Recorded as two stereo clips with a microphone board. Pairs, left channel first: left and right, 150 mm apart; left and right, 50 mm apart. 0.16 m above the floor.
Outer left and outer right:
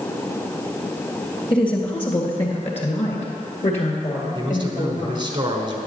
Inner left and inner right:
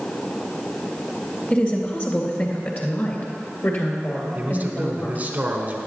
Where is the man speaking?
35° right (ahead or behind), 1.3 m.